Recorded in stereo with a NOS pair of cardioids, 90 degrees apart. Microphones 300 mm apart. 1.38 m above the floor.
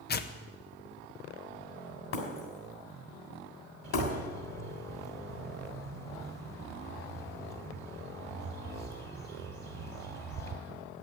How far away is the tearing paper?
About 0.8 m.